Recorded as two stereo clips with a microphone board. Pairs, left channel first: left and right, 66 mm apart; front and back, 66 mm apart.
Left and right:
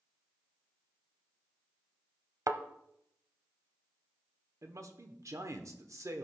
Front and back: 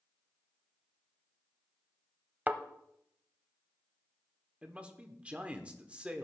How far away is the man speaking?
About 1.1 m.